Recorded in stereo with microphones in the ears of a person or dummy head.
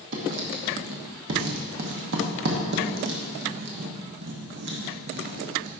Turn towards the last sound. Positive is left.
turn(degrees=-60)  # may be behind; listen again after turning